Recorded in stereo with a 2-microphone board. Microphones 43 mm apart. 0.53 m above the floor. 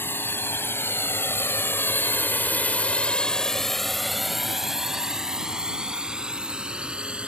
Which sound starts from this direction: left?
A drone, at 0.0 s.